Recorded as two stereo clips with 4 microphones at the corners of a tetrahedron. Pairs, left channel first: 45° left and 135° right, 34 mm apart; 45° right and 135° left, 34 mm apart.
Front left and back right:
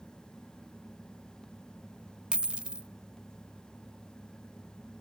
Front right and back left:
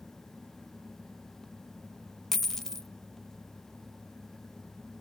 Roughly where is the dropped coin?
Behind right.